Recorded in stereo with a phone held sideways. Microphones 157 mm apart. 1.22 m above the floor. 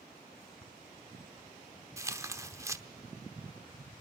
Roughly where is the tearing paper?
Centre.